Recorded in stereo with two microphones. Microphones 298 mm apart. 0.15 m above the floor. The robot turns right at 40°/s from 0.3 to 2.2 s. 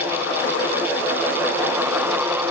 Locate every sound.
Only background noise.